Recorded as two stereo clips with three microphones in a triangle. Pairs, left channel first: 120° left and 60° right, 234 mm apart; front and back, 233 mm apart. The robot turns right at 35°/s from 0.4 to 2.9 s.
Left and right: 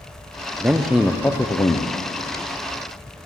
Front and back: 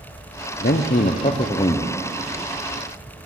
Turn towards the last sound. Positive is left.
turn(degrees=95)